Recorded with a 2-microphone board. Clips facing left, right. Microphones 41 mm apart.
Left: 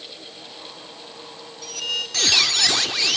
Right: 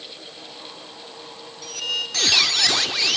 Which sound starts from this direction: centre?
A squeak, at 1.6 s.